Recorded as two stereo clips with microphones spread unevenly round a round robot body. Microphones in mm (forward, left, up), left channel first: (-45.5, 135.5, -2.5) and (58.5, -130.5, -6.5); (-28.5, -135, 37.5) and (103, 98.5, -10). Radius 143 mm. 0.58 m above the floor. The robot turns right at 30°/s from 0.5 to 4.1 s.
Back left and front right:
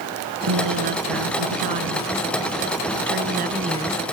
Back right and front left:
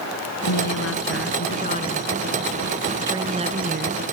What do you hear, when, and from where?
0.4 s a woman speaking: 95° right; by 4.0 s 10° left